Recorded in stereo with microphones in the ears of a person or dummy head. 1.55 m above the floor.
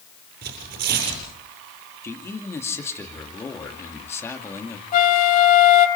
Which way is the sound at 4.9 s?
45° left (ahead or behind).